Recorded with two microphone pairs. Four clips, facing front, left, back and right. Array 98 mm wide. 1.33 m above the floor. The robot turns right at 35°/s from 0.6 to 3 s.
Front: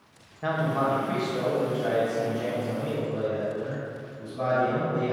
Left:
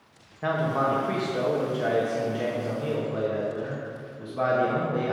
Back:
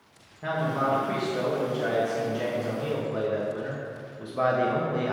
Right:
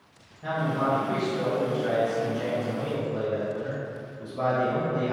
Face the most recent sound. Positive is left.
turn(degrees=160)